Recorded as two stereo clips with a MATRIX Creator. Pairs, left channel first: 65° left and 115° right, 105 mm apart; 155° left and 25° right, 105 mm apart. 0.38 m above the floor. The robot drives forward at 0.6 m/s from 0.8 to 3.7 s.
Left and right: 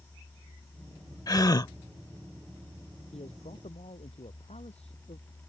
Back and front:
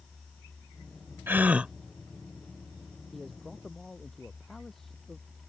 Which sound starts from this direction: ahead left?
A gasp, at 1.3 s.